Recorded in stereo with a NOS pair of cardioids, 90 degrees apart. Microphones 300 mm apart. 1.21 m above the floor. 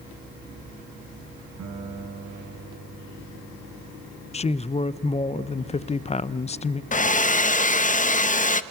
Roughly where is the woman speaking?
Ahead.